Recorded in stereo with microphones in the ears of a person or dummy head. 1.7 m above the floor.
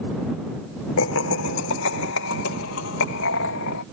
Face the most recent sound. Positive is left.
turn(degrees=70)  # may be behind; listen again after turning